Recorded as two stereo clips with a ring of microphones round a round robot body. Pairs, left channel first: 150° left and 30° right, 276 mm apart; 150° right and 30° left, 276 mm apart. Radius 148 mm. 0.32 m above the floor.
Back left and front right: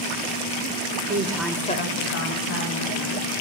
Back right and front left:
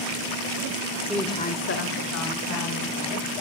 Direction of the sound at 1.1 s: 55° right.